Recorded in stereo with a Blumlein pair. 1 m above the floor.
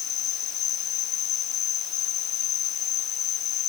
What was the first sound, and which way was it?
An insect, 35° left.